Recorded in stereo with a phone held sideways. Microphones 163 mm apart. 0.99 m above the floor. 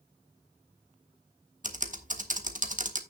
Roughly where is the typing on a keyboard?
Right.